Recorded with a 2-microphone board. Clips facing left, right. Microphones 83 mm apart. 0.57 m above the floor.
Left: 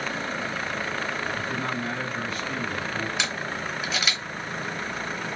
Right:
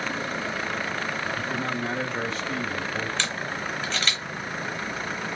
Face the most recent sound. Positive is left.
turn(degrees=10)  # may be behind; listen again after turning